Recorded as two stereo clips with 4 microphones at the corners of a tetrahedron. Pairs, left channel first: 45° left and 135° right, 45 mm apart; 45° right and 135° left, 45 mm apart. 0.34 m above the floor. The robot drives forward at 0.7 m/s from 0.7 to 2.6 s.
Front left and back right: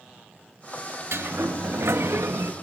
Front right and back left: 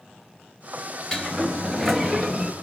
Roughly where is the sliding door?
Behind right.